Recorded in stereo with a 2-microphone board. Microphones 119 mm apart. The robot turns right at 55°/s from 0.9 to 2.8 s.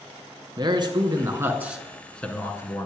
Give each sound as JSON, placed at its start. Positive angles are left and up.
{"t": 0.6, "sound": "a man speaking", "azimuth_deg": -60, "distance_m": 1.6}